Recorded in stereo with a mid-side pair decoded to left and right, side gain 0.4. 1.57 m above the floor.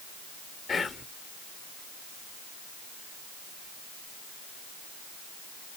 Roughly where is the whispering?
Ahead left.